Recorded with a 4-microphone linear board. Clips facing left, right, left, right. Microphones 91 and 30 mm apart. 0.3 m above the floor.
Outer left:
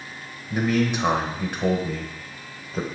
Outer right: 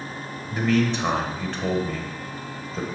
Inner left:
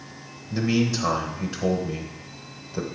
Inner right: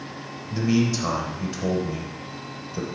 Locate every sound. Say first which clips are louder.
0.5 s a man speaking: even, inner right 1 dB; 15° left (ahead or behind), 1.0 m